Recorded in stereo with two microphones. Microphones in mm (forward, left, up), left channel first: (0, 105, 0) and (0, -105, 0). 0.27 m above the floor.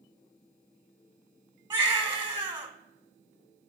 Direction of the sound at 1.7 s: 20° right (ahead or behind).